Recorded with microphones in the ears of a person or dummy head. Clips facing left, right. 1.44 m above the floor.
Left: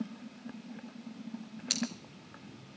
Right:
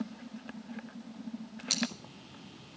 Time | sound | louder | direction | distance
1.7 | scissors | left 1 dB | 15° left (ahead or behind) | 2 m